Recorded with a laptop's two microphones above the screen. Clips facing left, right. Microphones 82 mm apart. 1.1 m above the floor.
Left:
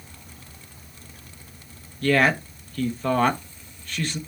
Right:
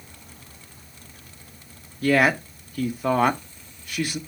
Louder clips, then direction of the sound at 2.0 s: Right 1 dB; 10° right (ahead or behind).